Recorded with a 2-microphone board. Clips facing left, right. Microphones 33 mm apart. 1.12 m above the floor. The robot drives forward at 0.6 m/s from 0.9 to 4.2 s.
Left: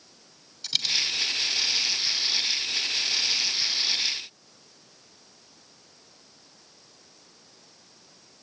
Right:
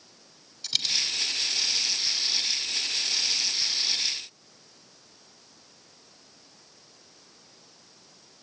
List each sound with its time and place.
0.6 s a dropped coin: 5° left (ahead or behind), 2.5 m